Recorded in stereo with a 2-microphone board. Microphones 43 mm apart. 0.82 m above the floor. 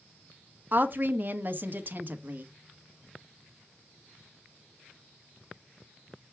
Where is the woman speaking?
45° right (ahead or behind), 1.3 m.